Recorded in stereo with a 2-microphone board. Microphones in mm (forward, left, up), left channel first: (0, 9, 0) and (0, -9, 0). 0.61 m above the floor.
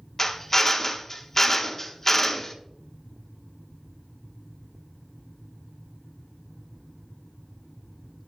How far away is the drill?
About 1.2 m.